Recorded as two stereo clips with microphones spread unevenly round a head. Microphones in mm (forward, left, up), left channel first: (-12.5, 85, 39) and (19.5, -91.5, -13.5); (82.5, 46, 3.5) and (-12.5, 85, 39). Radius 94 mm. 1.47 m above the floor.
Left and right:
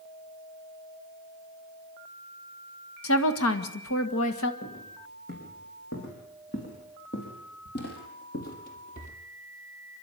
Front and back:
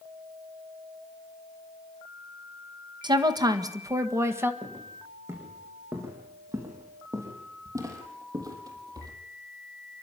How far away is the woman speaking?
About 1.9 m.